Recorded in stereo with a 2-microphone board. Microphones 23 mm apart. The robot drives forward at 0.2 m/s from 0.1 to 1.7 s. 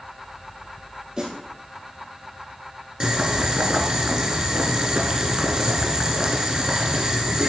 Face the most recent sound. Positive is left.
turn(degrees=-25)  # may be behind; listen again after turning